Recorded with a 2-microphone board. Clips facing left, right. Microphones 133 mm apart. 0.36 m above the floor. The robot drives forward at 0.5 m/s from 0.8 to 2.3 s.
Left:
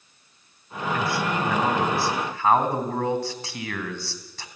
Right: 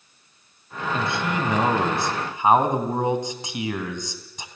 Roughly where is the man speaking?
Right.